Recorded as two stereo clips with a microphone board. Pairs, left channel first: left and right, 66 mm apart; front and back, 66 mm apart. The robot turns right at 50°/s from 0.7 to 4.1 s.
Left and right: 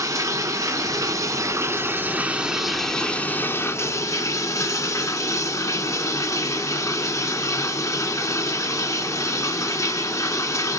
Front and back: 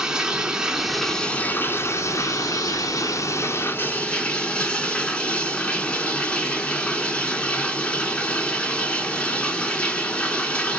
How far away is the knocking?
I don't hear knocking.